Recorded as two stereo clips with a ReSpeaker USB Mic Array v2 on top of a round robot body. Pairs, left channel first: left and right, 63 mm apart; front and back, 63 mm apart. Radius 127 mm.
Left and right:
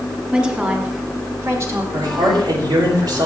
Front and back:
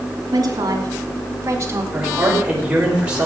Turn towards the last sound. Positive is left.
turn(degrees=-105)